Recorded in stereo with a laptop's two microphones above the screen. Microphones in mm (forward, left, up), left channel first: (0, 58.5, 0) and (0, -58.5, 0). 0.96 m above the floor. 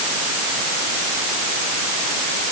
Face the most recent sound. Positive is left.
No sound to turn to.